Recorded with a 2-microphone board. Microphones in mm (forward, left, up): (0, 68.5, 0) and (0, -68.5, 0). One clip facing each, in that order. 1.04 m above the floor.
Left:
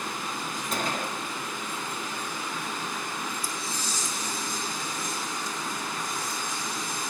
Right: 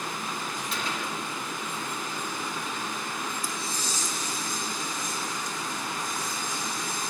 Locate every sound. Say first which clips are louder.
0.7 s a gunshot: left 4 dB; 45° left (ahead or behind), 0.9 m